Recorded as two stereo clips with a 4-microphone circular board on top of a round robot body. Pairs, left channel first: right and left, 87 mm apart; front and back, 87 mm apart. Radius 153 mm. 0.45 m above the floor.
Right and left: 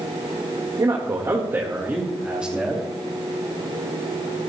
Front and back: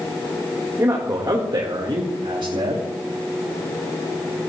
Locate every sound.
0.8 s a man speaking: 125° left, 1.9 m; by 2.9 s 175° left, 2.5 m